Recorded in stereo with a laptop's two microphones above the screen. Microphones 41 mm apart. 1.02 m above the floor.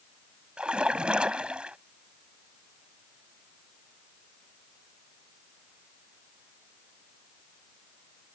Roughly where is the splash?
Right.